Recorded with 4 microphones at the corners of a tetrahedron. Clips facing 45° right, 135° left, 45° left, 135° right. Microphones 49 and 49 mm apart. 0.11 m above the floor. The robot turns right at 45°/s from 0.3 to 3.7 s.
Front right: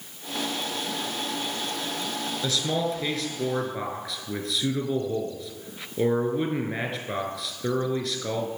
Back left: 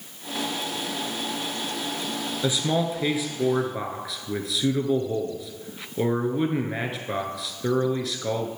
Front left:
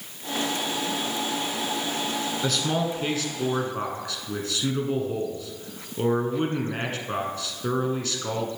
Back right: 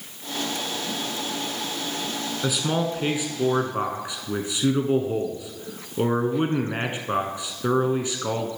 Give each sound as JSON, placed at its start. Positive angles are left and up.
{"t": 2.4, "sound": "a man speaking", "azimuth_deg": 165, "distance_m": 1.2}